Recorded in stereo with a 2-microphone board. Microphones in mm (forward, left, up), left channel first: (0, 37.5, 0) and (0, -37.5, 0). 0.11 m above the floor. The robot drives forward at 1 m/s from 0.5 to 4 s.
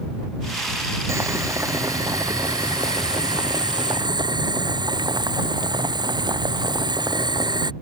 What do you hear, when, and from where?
1.1 s boiling: 40° right (ahead or behind); by 7.7 s 75° right (ahead or behind)